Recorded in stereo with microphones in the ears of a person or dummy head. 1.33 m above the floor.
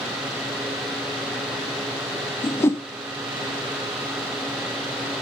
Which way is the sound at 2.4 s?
10° left (ahead or behind).